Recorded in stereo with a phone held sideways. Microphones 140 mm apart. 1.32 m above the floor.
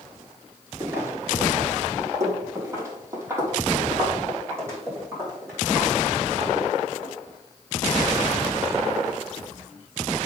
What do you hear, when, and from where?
0.8 s footsteps: 15° right (ahead or behind), 1.3 m; by 7.1 s 20° right (ahead or behind), 6.5 m